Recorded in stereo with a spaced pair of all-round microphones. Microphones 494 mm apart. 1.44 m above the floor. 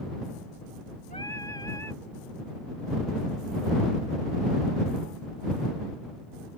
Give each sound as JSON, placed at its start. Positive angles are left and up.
{"t": 1.1, "sound": "singing", "side_deg": -45}